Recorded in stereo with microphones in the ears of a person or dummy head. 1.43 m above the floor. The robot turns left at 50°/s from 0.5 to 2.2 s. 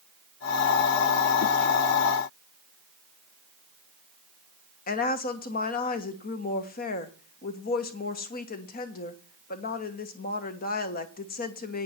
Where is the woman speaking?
45° left (ahead or behind), 1.3 m.